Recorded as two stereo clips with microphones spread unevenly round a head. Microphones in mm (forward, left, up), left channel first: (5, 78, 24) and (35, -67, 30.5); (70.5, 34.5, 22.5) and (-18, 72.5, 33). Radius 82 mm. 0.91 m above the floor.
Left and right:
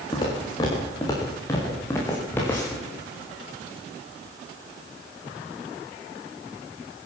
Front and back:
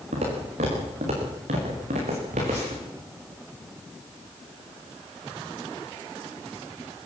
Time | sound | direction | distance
0.1 | footsteps | 165° left | 6 m